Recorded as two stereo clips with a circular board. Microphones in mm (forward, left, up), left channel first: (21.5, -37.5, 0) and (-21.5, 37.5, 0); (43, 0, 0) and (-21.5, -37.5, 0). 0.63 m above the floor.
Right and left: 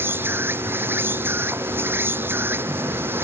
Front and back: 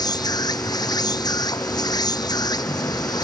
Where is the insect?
55° left.